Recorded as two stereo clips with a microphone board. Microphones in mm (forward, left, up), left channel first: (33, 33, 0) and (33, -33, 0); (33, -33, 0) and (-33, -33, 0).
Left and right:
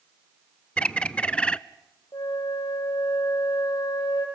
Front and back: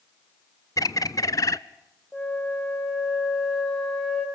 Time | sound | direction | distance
0.8 | a bird | 20° left | 0.5 m
2.1 | a flute | 80° left | 4.5 m